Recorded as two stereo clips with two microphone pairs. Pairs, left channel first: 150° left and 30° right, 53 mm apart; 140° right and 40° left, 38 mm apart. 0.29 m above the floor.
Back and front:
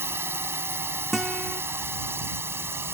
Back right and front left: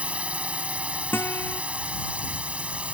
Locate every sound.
0.0 s a drone: 5° right
1.1 s a guitar: 115° right